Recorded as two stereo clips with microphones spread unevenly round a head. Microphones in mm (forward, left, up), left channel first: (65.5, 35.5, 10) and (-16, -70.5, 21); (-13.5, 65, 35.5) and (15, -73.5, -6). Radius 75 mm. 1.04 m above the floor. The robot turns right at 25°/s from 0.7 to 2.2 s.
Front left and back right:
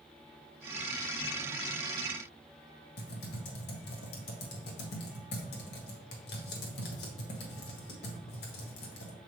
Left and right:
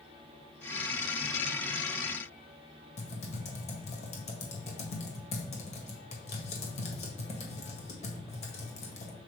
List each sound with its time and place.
3.0 s typing on a keyboard: 65° left, 1.6 m